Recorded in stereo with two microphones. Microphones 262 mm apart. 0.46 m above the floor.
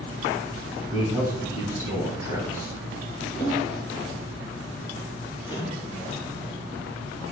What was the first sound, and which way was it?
A man speaking, 10° right (ahead or behind).